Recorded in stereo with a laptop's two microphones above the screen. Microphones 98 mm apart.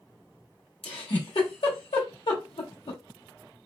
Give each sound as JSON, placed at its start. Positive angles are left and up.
{"t": 0.8, "sound": "a giggle", "side_deg": 70, "distance_m": 1.2}